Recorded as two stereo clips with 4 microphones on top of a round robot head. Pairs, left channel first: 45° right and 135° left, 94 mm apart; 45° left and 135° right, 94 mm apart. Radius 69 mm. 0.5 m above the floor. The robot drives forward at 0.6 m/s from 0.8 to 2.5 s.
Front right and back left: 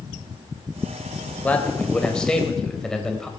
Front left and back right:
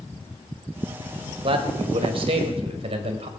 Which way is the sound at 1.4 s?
115° right.